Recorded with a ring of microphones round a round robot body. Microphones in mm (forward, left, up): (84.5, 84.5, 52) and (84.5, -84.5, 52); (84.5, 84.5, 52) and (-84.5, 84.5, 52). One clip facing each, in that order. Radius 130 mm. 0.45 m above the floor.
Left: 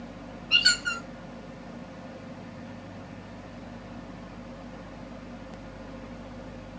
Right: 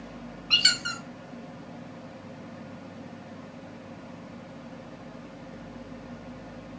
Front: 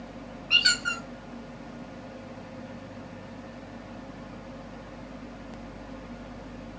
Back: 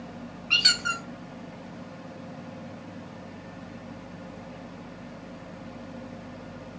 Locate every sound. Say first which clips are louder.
0.5 s a squeak: left 3 dB, front 2 dB; 120° right, 0.7 m